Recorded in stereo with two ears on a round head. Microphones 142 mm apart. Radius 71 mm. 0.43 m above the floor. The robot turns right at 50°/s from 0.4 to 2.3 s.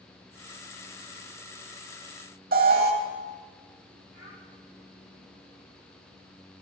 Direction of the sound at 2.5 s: 65° right (ahead or behind).